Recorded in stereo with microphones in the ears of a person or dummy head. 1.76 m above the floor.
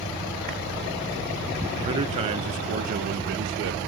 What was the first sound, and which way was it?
A man speaking, 25° right (ahead or behind).